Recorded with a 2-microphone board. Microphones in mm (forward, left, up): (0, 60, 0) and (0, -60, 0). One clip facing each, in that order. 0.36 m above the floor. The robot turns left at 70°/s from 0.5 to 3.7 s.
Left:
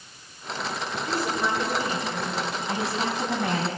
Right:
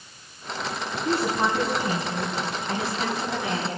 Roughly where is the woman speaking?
Right.